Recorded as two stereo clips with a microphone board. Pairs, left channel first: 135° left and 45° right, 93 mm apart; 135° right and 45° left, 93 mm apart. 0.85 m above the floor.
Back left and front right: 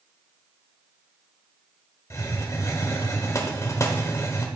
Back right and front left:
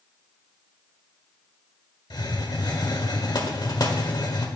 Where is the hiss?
170° right, 1.1 m.